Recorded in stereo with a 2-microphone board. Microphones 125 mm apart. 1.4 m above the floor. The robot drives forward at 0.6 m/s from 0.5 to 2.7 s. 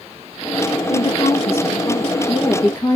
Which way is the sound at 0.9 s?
40° left (ahead or behind).